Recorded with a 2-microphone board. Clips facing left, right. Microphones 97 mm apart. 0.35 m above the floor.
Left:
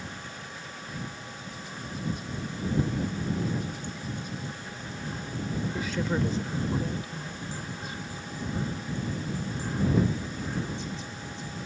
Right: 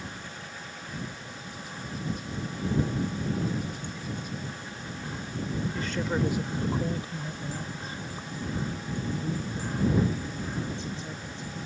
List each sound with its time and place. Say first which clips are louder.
5.7 s a woman speaking: even; 10° left (ahead or behind); by 11.6 s 40° right (ahead or behind)